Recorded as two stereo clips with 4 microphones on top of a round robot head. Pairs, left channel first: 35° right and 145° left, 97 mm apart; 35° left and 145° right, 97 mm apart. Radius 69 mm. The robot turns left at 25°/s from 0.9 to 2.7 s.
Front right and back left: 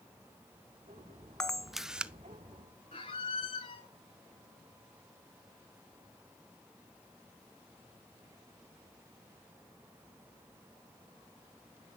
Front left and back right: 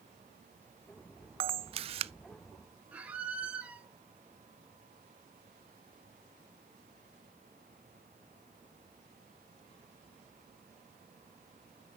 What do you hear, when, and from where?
1.4 s a camera shutter: 120° right, 0.5 m; by 2.1 s 140° right, 0.5 m
2.9 s a squeak: 70° right, 1.1 m